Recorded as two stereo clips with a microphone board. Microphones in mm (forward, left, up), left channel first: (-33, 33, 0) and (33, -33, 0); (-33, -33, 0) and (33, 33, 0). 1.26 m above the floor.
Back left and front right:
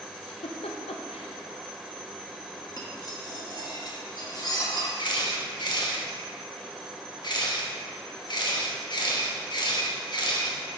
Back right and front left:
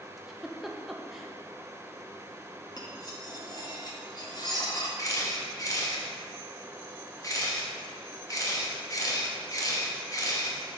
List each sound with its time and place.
0.2 s a giggle: 135° left, 0.5 m
2.8 s cutlery clinking: straight behind, 1.0 m
5.0 s a camera shutter: 175° left, 1.0 m